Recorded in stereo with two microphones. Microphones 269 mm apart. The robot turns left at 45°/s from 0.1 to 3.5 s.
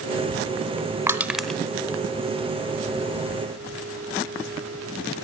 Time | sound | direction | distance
1.1 | crushing | 10° right (ahead or behind) | 1.5 m